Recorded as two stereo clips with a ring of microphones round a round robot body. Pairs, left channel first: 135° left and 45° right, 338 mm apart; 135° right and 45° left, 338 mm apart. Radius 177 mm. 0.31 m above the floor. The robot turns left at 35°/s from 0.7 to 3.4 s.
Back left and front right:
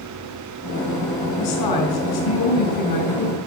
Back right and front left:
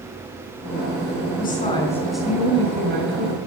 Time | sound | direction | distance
1.4 | a woman speaking | 160° left | 4.5 m